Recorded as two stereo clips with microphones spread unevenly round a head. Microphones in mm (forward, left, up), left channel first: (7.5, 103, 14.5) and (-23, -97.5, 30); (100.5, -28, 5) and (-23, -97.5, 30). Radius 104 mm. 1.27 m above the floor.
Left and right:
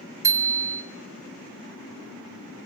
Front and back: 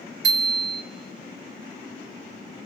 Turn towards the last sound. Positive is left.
turn(degrees=-175)